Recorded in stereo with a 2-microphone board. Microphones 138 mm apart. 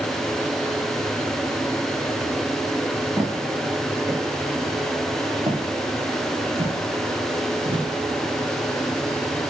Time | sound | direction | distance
3.2 | footsteps | 20° right (ahead or behind) | 1.8 m